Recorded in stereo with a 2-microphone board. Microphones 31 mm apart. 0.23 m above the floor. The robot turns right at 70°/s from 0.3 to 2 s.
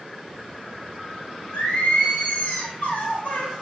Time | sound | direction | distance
1.5 | singing | 65° left | 0.9 m